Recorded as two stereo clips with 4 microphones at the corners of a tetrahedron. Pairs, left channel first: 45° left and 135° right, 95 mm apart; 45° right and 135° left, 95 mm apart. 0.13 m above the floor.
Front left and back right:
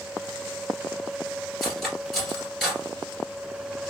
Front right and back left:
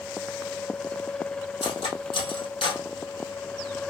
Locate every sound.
1.6 s cutlery clinking: 45° right, 1.7 m